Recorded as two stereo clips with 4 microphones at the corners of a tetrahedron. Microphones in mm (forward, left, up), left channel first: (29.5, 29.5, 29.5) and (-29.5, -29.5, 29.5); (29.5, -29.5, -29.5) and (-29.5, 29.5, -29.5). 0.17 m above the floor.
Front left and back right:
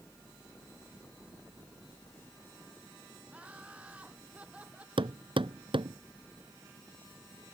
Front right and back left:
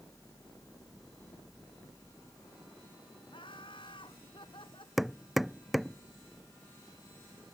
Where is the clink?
I don't hear a clink.